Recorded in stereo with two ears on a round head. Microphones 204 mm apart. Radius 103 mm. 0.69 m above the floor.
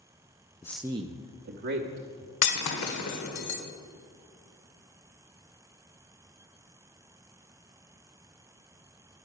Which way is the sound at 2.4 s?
80° left.